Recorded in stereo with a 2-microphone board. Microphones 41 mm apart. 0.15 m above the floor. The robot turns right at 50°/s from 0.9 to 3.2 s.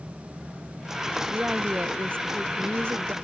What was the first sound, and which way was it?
A woman speaking, 155° right.